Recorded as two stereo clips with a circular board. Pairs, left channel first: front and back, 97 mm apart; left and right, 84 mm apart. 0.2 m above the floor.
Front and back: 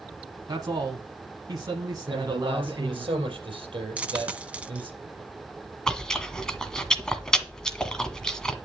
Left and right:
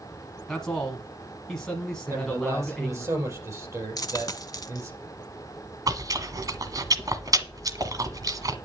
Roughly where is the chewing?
Right.